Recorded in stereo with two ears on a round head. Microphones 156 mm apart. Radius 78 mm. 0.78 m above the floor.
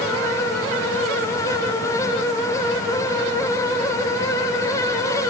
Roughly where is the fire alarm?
No fire alarm in this recording.